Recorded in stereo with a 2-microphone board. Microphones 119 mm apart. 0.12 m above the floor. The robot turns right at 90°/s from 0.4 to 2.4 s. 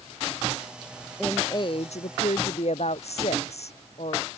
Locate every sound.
1.2 s a woman speaking: 5° left; by 4.3 s 115° left